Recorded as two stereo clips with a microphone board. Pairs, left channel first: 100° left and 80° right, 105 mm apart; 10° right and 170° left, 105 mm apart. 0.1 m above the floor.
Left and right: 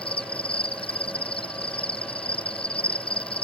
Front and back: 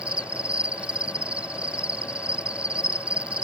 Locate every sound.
0.0 s an insect: 95° left